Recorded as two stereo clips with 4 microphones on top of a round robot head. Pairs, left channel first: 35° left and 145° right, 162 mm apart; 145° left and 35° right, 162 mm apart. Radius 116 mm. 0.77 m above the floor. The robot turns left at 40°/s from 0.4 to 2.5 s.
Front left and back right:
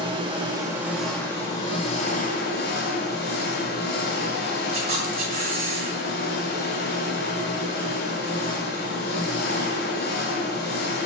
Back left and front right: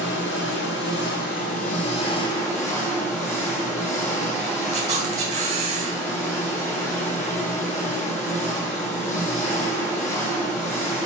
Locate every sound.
0.0 s an engine running: 150° left, 1.7 m; by 11.1 s 70° left, 1.7 m
4.7 s a camera shutter: 90° right, 1.7 m